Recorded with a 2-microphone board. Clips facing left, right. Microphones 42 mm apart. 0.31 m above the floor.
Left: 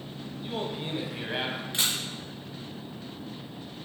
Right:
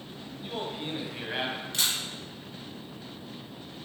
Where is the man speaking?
Centre (ahead or behind), 1.3 m.